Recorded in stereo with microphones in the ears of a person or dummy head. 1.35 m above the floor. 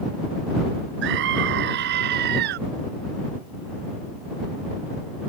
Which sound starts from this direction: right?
A scream, at 1.0 s.